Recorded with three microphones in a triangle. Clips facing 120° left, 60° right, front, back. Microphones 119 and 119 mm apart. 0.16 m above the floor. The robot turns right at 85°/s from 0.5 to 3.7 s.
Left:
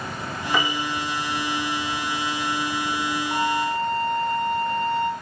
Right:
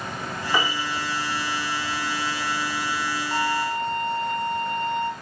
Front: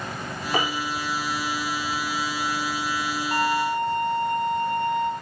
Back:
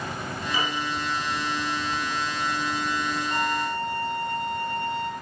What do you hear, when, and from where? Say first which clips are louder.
0.5 s a piano: left 1 dB, front 4 dB; 20° left, 3.5 m; by 0.9 s 50° left, 3.5 m
3.3 s a violin: left 1 dB, front 6 dB; 40° left, 1.7 m; by 5.1 s 75° left, 1.7 m